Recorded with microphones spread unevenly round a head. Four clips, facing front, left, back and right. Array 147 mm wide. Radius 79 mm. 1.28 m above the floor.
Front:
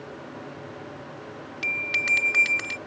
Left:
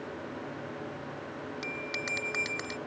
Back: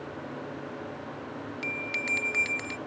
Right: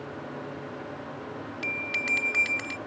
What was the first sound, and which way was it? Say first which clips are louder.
A bell: right 3 dB, front 7 dB; 35° left.